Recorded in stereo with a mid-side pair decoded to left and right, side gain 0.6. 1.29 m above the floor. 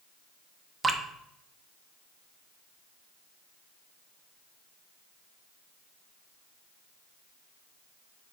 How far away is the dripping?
About 0.9 m.